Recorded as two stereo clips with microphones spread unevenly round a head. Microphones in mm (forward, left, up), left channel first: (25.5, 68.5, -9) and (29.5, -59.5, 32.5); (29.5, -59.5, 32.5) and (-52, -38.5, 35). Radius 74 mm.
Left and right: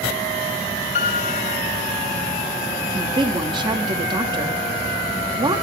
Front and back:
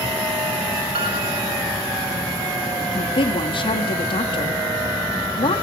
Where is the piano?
130° left, 4 m.